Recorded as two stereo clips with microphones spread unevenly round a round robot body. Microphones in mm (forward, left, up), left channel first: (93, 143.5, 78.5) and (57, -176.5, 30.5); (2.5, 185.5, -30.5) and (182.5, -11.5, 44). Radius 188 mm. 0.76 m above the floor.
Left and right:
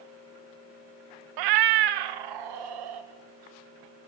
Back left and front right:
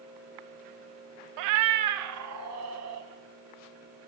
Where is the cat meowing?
70° right, 0.5 m; by 3.1 s 100° right, 2 m.